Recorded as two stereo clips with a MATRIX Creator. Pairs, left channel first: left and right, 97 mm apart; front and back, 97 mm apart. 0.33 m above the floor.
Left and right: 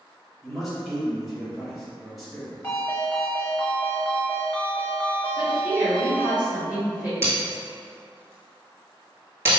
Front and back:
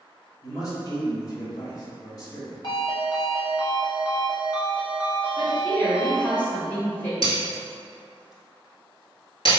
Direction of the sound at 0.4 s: Straight ahead.